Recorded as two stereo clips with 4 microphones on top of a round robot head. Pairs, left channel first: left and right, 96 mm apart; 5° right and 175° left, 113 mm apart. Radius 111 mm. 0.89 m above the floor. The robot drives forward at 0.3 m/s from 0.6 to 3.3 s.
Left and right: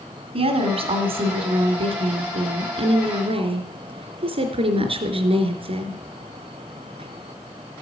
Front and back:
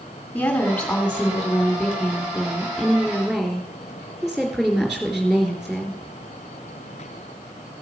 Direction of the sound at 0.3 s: 85° right.